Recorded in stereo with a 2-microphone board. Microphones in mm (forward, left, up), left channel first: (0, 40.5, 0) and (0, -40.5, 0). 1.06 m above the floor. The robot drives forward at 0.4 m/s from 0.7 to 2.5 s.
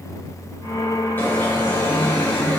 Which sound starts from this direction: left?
An alarm, at 1.2 s.